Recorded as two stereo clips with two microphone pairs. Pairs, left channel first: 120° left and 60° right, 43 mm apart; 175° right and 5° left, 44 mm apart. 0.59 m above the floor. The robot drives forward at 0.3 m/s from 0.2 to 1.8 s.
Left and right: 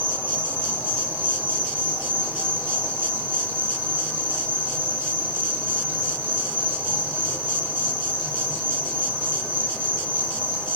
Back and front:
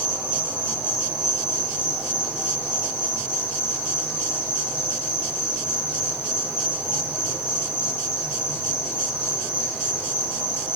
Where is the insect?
35° right, 1.5 m; by 10.8 s 50° right, 1.2 m.